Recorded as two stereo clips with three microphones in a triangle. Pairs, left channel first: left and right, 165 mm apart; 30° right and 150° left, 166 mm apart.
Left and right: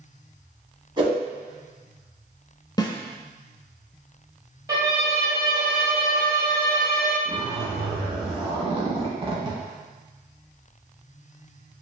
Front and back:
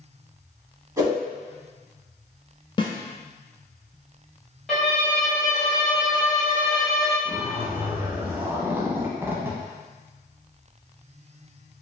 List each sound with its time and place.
1.0 s a whoosh: 145° right, 1.7 m
2.8 s a snare drum: 25° left, 0.6 m
4.7 s a violin: 115° right, 1.1 m
7.2 s a zipper: 135° right, 0.8 m